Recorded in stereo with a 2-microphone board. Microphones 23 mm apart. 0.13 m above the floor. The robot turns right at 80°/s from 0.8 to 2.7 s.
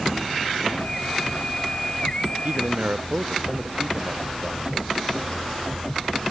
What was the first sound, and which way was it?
A man speaking, 75° right (ahead or behind).